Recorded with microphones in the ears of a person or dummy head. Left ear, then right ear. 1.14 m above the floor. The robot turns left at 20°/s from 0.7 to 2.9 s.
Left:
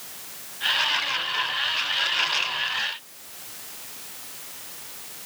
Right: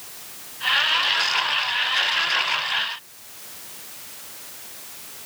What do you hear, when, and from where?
Only background noise.